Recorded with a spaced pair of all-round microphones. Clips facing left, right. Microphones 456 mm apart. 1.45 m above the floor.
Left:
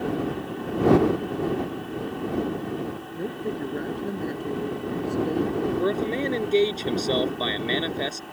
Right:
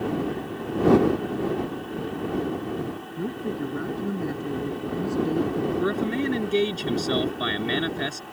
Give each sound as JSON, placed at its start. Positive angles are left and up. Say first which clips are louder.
{"t": 3.2, "sound": "a woman speaking", "louder": "right 1 dB", "side_deg": -25}
{"t": 5.8, "sound": "a man speaking", "louder": "even", "side_deg": -30}